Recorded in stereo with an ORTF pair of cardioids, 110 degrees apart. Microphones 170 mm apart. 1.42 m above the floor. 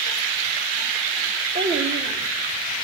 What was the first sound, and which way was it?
A child speaking, 65° right.